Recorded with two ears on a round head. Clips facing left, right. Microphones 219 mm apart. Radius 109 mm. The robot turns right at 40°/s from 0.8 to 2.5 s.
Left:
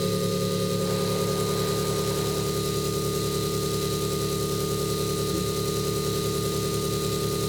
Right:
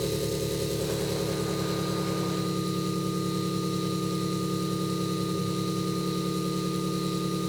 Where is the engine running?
Straight ahead, 2.0 m; by 7.5 s 70° left, 2.0 m.